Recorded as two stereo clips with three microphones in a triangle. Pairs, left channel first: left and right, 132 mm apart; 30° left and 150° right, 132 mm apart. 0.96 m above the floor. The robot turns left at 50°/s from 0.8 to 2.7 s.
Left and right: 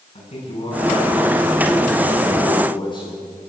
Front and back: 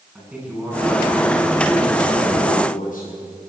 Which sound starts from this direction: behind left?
A man speaking, at 0.1 s.